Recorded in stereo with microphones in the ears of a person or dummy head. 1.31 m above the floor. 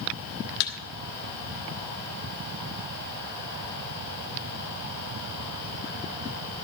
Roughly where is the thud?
Left.